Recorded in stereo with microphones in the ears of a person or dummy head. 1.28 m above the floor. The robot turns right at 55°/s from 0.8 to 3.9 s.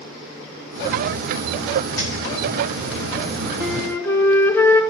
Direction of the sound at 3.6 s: Centre (ahead or behind).